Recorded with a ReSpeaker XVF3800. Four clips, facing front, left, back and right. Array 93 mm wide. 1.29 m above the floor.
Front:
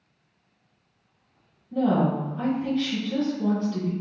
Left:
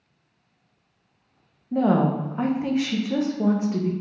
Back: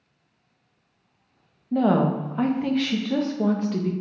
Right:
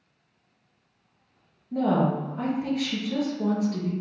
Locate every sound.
1.7 s a woman speaking: 155° left, 0.7 m